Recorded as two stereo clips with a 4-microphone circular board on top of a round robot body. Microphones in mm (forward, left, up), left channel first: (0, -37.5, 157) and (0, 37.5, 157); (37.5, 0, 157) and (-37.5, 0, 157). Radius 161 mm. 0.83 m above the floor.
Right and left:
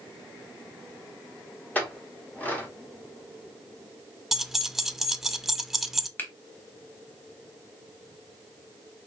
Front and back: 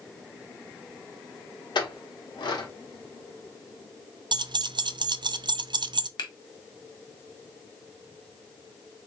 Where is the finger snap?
20° right, 1.1 m.